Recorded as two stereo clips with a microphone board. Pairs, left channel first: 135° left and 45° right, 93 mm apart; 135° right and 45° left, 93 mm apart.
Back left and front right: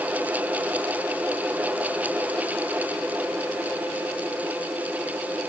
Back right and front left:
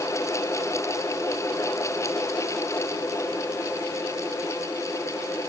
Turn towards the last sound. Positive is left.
No sound to turn to.